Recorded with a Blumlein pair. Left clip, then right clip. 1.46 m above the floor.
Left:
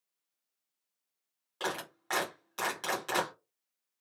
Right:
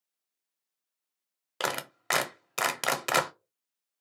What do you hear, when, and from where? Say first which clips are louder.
1.6 s a clap: right 4 dB; 45° right, 0.6 m